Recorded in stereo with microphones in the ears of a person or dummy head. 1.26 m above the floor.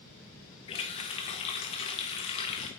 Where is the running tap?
30° left (ahead or behind), 0.8 m.